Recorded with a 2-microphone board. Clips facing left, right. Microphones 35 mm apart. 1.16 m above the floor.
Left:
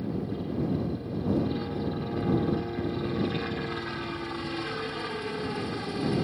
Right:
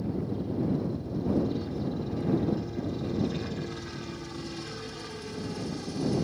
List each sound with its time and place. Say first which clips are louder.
0.0 s a helicopter: even; 30° left (ahead or behind)